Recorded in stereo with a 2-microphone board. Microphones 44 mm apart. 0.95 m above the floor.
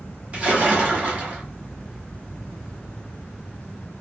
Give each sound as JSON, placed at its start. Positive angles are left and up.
{"t": 0.3, "sound": "a splash", "side_deg": -30, "distance_m": 0.9}